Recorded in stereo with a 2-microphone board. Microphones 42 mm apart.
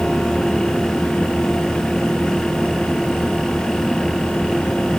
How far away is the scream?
I don't hear a scream.